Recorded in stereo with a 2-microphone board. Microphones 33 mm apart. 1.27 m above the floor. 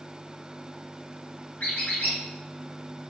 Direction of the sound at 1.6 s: 55° left (ahead or behind).